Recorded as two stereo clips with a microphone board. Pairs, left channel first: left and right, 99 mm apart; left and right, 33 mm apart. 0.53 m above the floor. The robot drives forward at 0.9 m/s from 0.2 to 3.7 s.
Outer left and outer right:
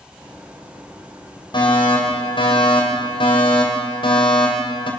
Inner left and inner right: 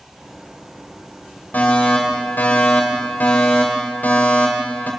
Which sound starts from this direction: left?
A fire alarm, at 1.5 s.